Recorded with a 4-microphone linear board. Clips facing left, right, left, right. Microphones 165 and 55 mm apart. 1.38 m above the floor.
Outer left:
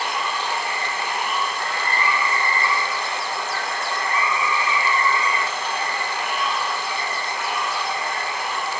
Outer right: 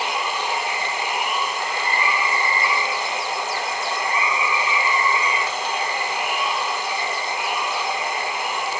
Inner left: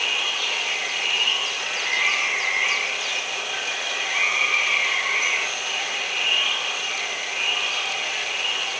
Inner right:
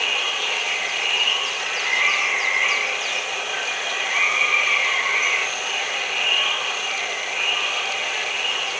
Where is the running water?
20° right (ahead or behind), 1.3 m.